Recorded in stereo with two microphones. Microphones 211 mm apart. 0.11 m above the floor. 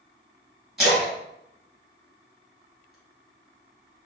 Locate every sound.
0.8 s a splash: centre (ahead or behind), 1.9 m